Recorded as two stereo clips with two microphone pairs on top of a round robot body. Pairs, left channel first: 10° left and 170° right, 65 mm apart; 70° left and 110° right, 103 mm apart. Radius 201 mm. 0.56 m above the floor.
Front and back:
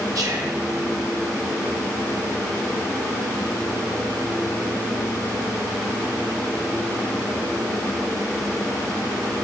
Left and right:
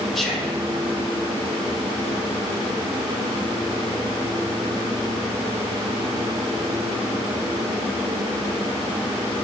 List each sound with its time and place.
0.1 s whispering: 160° left, 4 m